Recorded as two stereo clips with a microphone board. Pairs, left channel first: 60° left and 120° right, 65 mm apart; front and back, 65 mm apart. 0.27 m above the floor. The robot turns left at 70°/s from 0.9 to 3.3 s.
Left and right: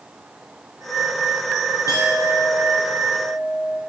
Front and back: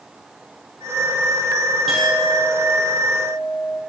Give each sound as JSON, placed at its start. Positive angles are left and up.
{"t": 1.9, "sound": "a clink", "azimuth_deg": 90, "distance_m": 4.5}